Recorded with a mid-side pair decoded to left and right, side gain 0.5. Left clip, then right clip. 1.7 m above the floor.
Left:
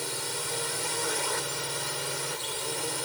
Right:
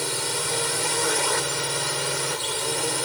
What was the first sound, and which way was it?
A drone, 40° right.